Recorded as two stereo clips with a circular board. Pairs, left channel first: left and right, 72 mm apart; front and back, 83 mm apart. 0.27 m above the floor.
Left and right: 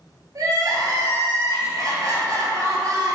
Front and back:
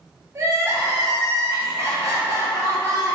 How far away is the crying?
About 0.9 m.